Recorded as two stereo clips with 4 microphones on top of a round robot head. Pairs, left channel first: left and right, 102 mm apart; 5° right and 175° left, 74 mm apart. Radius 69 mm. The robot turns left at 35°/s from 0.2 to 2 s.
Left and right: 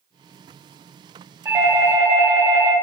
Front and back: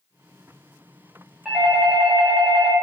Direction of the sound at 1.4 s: 105° right.